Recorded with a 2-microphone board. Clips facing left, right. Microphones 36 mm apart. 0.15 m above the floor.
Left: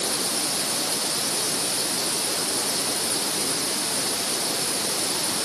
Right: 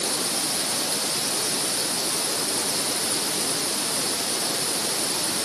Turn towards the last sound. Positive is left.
No sound to turn to.